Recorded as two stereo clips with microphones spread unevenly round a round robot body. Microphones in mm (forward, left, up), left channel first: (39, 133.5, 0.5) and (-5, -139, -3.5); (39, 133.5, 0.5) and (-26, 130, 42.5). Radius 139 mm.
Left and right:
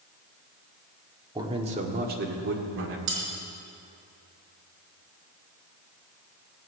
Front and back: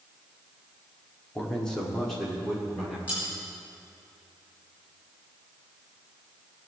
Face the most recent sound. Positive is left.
turn(degrees=-70)